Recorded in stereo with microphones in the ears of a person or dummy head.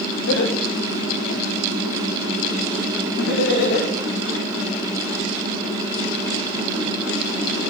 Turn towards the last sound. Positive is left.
turn(degrees=60)  # may be behind; listen again after turning